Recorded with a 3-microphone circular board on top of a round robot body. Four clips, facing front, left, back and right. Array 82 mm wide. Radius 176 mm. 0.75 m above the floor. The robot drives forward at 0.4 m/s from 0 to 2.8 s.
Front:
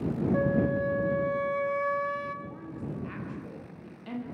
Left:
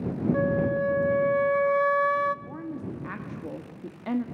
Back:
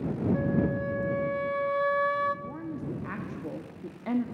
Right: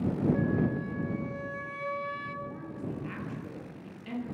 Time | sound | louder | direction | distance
0.3 | a flute | left 5 dB, front 3 dB | 60° left | 0.9 m
2.5 | a woman speaking | left 3 dB, back 3 dB | 125° left | 1.8 m